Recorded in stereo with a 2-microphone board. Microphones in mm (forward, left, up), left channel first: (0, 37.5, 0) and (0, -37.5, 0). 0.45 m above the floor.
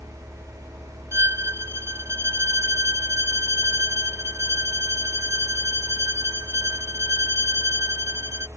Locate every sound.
1.1 s a violin: 35° right (ahead or behind)